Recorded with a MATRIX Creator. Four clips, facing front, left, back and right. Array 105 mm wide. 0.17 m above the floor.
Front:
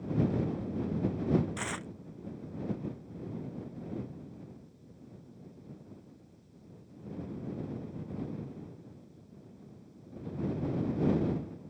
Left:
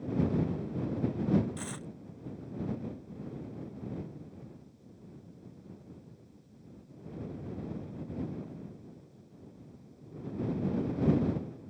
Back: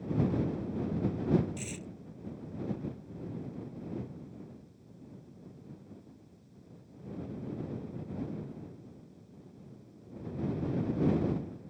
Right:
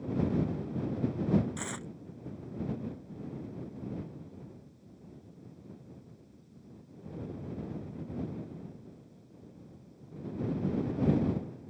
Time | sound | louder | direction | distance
1.6 | tearing paper | right 1 dB, front 4 dB | 15° right | ?